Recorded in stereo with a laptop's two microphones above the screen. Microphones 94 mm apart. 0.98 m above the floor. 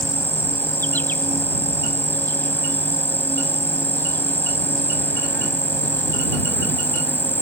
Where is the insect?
20° left (ahead or behind).